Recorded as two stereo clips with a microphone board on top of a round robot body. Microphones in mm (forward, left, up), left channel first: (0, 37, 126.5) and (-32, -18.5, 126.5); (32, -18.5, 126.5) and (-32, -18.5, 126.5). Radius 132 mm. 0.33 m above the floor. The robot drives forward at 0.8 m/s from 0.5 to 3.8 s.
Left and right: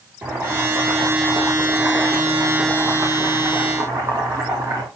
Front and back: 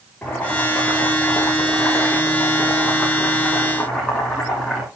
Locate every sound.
0.2 s boiling: 70° right, 10 m; by 4.9 s 85° right, 9 m